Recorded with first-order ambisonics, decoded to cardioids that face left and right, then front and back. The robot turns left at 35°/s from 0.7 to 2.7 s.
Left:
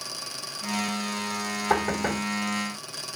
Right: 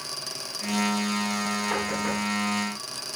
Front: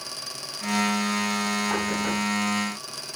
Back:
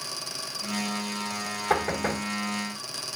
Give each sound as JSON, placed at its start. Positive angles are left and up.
{"t": 1.7, "sound": "knocking", "azimuth_deg": 135, "distance_m": 4.5}